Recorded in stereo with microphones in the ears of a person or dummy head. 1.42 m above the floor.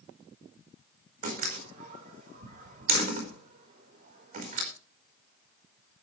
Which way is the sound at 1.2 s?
45° right (ahead or behind).